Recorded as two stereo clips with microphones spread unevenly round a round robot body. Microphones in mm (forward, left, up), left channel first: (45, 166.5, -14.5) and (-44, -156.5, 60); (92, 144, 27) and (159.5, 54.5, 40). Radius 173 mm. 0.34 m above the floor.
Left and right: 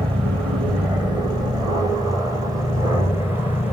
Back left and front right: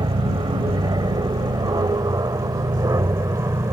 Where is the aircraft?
25° right; by 3.7 s 5° right.